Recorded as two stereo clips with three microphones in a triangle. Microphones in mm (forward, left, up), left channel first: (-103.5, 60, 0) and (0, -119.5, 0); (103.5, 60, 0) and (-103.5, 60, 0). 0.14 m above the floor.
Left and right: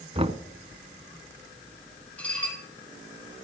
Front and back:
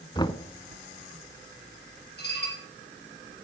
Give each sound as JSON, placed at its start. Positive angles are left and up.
{"t": 0.1, "sound": "knocking", "azimuth_deg": -45, "distance_m": 0.8}
{"t": 2.2, "sound": "dishes clattering", "azimuth_deg": 35, "distance_m": 3.5}